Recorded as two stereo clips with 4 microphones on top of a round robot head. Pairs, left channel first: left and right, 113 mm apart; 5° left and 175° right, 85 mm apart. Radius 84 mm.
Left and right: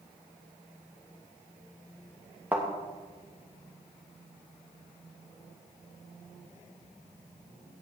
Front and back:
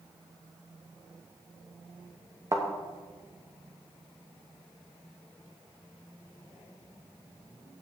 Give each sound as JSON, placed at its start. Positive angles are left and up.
{"t": 2.5, "sound": "a thud", "azimuth_deg": -160, "distance_m": 1.0}